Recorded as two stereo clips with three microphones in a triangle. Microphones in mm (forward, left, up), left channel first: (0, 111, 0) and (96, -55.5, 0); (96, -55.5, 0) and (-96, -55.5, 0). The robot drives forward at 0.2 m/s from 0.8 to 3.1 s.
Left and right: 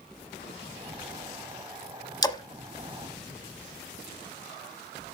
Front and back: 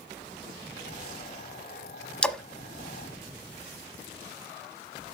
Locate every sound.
2.2 s a splash: 75° left, 0.8 m; by 2.4 s 85° left, 0.8 m